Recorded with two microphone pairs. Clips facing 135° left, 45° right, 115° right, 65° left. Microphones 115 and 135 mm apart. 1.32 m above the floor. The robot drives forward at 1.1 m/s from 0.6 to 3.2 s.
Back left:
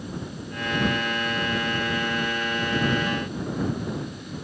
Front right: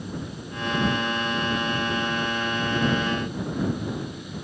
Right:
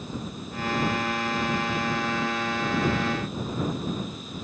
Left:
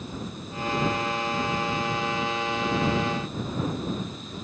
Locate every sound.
Only background noise.